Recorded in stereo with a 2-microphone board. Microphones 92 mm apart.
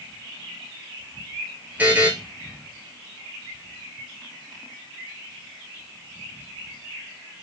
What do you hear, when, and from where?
1.8 s a buzzer: 20° right (ahead or behind), 0.7 m